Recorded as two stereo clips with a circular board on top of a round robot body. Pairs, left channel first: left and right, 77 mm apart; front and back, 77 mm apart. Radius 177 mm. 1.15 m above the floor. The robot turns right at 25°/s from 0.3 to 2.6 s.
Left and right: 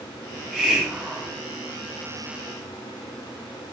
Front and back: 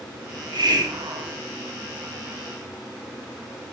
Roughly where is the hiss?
Behind.